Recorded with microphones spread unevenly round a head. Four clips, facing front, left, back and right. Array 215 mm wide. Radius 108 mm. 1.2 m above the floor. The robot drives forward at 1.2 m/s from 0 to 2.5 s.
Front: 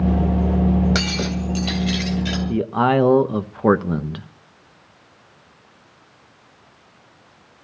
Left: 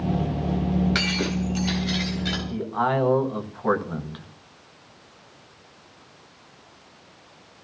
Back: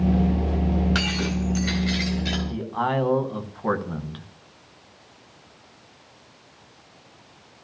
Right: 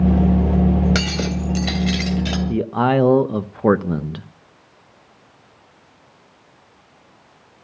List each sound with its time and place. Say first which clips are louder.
0.9 s breaking glass: right 3 dB, front 2 dB; 65° right, 2.5 m; by 2.4 s 105° right, 2.5 m
2.5 s a man speaking: right 6 dB, front 9 dB; 50° right, 1.2 m